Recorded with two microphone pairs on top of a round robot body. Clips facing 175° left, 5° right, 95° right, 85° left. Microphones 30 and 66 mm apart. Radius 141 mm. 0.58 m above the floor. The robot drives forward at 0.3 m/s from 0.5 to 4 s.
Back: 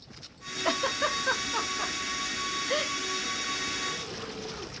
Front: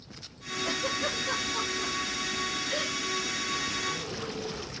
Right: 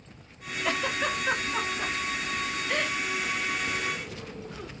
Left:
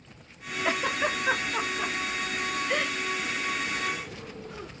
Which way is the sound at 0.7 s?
160° left.